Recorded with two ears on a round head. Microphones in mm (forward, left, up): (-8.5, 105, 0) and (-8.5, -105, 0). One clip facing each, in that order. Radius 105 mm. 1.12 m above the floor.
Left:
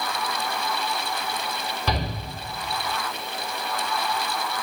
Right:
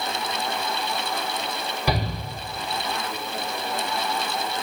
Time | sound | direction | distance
1.9 | a shout | 10° right (ahead or behind) | 3.5 m